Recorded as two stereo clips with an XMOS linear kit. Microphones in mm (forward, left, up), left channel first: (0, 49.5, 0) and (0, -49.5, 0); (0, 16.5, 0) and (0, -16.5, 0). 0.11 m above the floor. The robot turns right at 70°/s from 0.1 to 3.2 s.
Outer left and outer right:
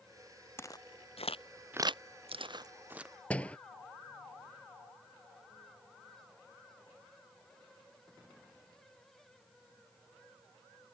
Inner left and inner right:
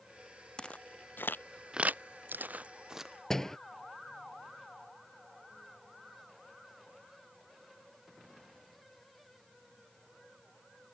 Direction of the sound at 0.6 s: 25° left (ahead or behind).